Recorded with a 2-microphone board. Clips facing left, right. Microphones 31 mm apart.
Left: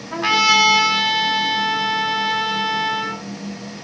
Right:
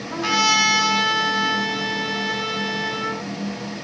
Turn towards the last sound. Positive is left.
turn(degrees=20)  # may be behind; listen again after turning